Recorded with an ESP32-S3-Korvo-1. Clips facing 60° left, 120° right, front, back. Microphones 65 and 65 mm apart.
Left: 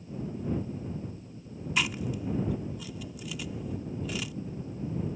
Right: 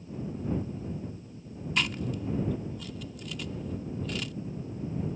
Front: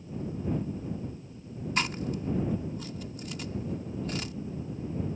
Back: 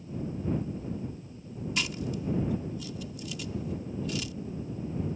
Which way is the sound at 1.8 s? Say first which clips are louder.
Even, front 3 dB; 20° right.